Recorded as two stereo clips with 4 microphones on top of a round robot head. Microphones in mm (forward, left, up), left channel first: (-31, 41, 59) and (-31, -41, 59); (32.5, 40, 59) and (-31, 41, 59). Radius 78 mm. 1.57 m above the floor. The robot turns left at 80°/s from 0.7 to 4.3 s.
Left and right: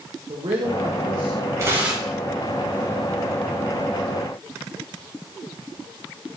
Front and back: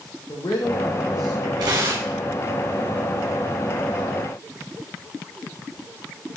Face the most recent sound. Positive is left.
turn(degrees=0)